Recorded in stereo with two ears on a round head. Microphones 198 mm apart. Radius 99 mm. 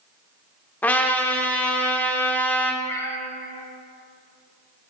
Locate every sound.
0.8 s a trumpet: 10° left (ahead or behind), 0.7 m
2.8 s a cat meowing: 15° left (ahead or behind), 1.2 m